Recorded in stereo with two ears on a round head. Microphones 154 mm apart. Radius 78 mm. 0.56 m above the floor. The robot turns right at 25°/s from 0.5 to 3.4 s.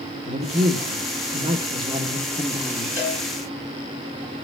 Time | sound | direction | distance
0.2 | a man speaking | 75° right | 1.4 m
3.0 | a cowbell | 40° left (ahead or behind) | 6 m